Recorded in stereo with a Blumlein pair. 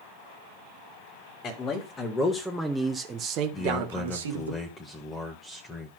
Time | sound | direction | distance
1.4 | a man speaking | 30° left | 1.8 m
3.5 | a man speaking | 15° left | 1.3 m